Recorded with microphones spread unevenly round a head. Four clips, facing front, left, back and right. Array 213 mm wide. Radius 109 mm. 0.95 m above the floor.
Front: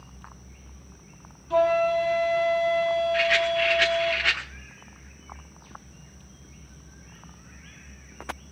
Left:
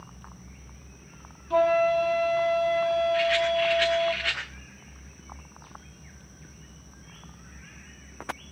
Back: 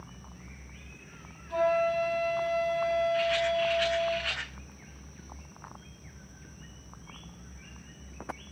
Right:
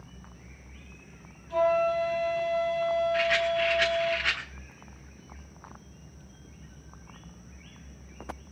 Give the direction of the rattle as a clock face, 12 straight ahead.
12 o'clock.